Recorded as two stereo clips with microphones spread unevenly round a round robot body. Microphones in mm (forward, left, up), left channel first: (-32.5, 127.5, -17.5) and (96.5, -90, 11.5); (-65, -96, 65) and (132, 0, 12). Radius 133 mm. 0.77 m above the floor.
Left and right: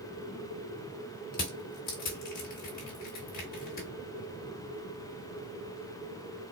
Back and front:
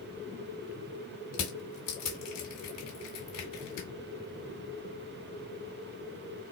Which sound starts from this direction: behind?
Crushing, at 1.3 s.